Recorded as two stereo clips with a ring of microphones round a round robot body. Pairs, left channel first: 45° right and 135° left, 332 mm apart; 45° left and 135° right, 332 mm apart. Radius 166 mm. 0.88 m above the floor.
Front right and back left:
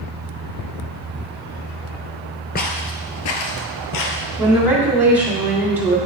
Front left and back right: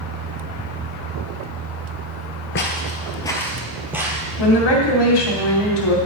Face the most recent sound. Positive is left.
turn(degrees=50)